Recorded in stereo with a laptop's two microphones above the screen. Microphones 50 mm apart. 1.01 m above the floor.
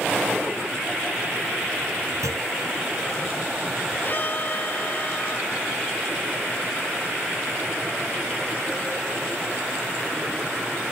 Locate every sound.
2.2 s a clunk: 85° right
4.0 s a violin: 40° left (ahead or behind)